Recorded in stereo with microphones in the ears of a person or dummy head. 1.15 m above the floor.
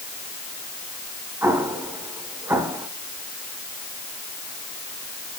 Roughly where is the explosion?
Centre.